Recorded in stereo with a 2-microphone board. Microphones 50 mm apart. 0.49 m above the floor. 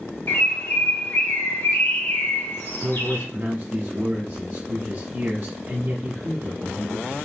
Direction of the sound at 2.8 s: 50° right (ahead or behind).